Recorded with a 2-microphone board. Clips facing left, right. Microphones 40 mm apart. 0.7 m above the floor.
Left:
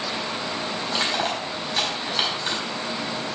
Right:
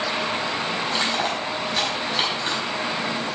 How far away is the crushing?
About 4.5 m.